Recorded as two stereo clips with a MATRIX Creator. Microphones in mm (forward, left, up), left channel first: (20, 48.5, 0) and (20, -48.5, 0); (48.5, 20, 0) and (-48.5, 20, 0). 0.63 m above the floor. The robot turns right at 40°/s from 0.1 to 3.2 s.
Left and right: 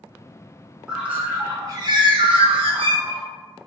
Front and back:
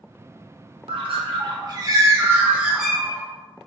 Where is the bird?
170° right, 0.6 m; by 3.2 s 80° right, 0.6 m.